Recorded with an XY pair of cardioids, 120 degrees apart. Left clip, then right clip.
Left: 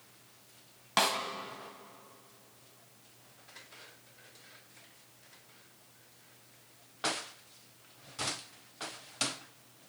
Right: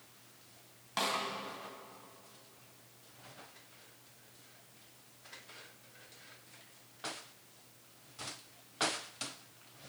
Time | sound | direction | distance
1.0 | a snare drum | 45° left | 2.5 m